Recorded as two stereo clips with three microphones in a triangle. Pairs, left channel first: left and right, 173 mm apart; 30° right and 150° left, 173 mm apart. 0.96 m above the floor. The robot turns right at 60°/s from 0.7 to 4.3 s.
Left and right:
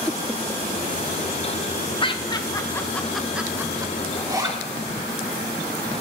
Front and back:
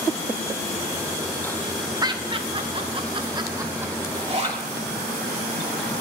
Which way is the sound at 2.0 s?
110° left.